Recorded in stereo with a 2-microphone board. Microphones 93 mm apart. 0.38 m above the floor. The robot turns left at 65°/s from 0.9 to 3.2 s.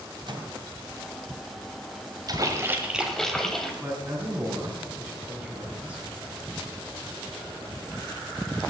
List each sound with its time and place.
0.3 s a microwave: 55° right (ahead or behind), 1.9 m
2.3 s a splash: 125° right, 2 m; by 3.7 s 175° left, 2 m
3.8 s a man speaking: 15° right (ahead or behind), 4 m